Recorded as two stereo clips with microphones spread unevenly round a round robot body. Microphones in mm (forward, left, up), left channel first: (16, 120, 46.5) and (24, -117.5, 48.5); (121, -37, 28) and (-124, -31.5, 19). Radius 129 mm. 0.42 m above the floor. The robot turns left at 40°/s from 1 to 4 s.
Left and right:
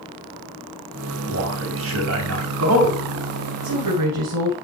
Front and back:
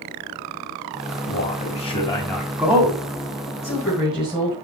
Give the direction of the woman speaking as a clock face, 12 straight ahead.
3 o'clock.